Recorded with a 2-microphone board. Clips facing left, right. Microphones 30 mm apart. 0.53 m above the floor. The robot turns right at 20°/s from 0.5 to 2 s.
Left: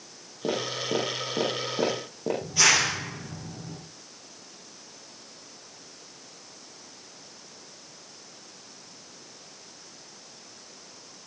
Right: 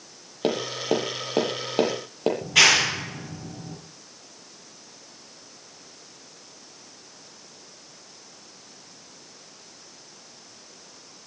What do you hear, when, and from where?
0.4 s tapping: 65° right (ahead or behind), 8.5 m; by 2.3 s 85° right, 8.5 m
2.4 s a clap: 80° right, 8.5 m